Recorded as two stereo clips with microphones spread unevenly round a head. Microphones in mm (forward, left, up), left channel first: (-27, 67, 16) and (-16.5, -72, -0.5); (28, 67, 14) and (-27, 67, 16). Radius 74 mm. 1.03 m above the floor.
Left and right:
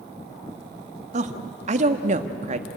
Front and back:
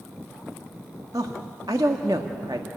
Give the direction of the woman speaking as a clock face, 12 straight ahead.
4 o'clock.